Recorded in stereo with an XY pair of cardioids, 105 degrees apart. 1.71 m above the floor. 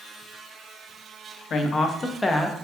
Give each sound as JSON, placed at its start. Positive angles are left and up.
{"t": 1.5, "sound": "a woman speaking", "azimuth_deg": 50, "distance_m": 0.8}